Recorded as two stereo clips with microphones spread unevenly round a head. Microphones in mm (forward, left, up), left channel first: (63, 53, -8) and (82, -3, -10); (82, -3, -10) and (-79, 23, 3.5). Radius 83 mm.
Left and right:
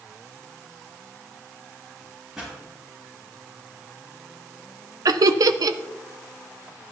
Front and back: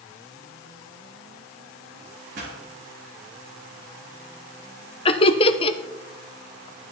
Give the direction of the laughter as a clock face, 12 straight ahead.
2 o'clock.